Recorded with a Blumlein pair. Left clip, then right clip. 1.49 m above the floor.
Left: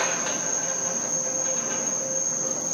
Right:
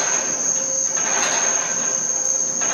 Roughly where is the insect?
Ahead right.